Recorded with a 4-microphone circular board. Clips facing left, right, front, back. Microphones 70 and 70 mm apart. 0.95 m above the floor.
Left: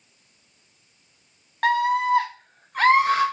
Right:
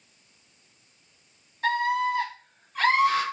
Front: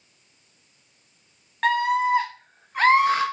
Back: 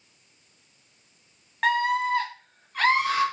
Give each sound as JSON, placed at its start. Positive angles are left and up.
{"t": 1.6, "sound": "a scream", "azimuth_deg": 90, "distance_m": 0.9}